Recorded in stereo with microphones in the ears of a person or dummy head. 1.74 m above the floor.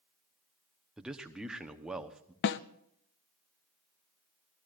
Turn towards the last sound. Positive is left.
turn(degrees=50)  # may be behind; listen again after turning